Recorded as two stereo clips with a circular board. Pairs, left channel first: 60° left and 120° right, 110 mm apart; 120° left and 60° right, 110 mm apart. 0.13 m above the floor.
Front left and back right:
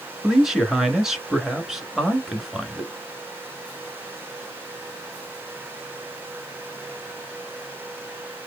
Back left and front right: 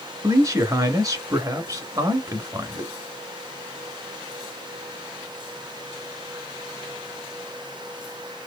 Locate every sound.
0.2 s a man speaking: 35° right, 1.4 m